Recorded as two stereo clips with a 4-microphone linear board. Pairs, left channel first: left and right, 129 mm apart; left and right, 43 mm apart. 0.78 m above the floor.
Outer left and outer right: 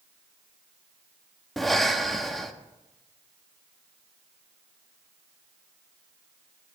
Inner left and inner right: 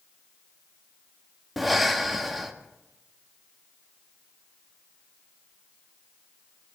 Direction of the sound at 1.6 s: Centre (ahead or behind).